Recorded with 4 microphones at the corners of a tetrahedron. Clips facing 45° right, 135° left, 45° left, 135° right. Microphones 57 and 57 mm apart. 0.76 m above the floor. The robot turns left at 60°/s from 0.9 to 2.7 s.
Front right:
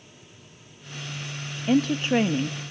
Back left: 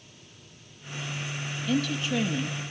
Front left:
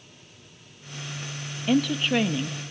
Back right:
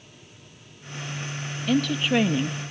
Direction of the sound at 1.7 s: 30° right.